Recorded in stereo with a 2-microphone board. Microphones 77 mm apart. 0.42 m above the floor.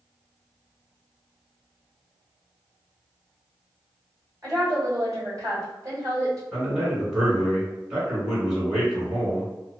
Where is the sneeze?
I don't hear a sneeze.